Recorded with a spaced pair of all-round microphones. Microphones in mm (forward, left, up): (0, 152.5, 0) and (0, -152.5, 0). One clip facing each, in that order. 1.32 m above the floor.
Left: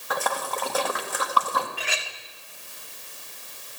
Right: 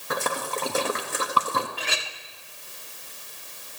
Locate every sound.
0.1 s a splash: 30° right (ahead or behind), 1.3 m
1.8 s a clink: 45° right (ahead or behind), 1.2 m